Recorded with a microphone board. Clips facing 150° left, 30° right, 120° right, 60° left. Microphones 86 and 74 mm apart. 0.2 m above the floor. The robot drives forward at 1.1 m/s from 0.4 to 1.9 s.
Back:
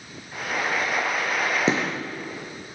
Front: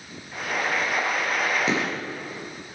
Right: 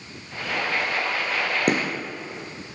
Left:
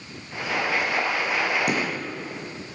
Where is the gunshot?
155° right, 3.5 m.